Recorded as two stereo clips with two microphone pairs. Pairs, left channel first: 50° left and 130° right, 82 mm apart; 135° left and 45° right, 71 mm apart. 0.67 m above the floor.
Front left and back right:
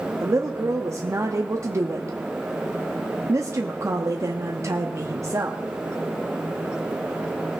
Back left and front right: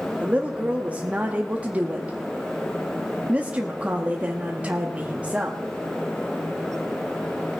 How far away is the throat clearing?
I don't hear throat clearing.